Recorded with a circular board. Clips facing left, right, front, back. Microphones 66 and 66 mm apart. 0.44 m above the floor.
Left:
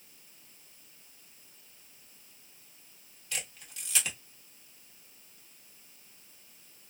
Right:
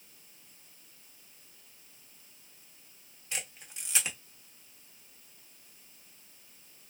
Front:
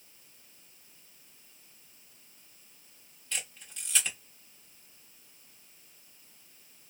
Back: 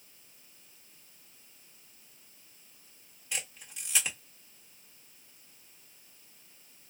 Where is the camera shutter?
125° right, 1.1 m.